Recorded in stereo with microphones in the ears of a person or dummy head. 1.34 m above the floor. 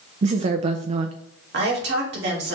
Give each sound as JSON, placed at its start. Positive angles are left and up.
{"t": 0.2, "sound": "a woman speaking", "side_deg": -40, "distance_m": 0.6}
{"t": 1.5, "sound": "a woman speaking", "side_deg": -65, "distance_m": 2.5}